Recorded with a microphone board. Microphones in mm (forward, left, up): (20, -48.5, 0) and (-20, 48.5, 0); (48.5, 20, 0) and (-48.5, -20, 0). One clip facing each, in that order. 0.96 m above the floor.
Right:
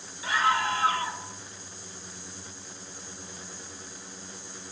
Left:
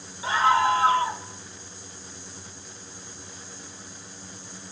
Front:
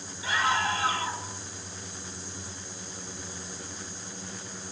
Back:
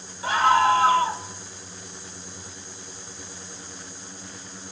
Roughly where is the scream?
Behind.